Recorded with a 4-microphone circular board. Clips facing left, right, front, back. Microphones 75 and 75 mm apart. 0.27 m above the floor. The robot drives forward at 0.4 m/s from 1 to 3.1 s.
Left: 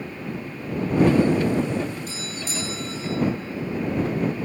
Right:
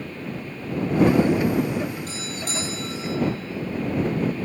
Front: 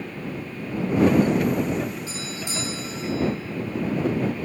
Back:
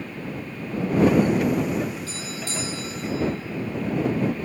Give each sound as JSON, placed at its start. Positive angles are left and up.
{"t": 2.1, "sound": "a doorbell", "azimuth_deg": -65, "distance_m": 4.0}